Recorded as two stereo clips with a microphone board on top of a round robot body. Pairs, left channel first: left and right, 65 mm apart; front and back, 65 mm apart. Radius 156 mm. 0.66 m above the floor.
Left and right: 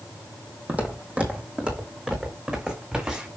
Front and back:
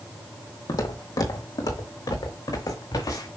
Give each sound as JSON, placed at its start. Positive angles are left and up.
{"t": 0.7, "sound": "footsteps", "azimuth_deg": -25, "distance_m": 2.5}